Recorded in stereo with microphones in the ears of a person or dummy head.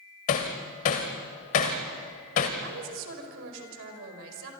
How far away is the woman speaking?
About 4.5 m.